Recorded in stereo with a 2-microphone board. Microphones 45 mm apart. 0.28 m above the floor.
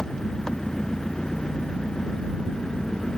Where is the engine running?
15° left (ahead or behind).